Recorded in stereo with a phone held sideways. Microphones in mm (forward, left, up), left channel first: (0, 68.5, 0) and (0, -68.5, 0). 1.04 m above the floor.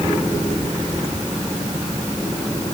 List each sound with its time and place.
Only background noise.